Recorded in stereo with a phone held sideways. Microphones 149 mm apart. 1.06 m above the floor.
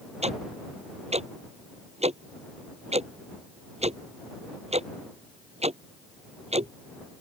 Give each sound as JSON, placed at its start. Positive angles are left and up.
{"t": 0.2, "sound": "ticking", "side_deg": -45}